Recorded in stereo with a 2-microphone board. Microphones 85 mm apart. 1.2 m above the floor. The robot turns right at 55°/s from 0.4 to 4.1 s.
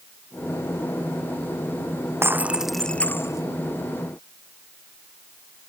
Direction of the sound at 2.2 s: 30° right.